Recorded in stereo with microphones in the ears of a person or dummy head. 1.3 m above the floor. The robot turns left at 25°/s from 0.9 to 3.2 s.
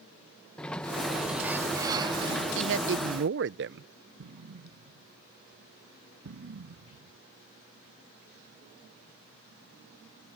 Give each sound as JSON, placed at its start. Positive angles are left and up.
{"t": 0.6, "sound": "a sliding door", "azimuth_deg": 10}
{"t": 2.5, "sound": "a man speaking", "side_deg": -65}
{"t": 4.2, "sound": "an explosion", "side_deg": -60}